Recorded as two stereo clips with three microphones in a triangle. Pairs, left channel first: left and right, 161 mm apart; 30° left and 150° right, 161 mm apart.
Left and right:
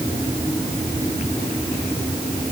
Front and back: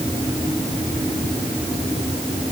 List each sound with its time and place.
Only background noise.